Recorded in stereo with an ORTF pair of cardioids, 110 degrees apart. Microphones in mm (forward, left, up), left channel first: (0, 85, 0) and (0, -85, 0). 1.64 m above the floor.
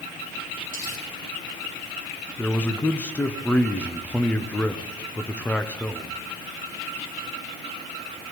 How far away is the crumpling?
About 5.5 m.